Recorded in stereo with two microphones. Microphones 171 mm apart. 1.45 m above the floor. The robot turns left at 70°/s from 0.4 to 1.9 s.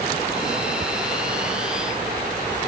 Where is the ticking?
40° right (ahead or behind); by 0.9 s 45° right (ahead or behind).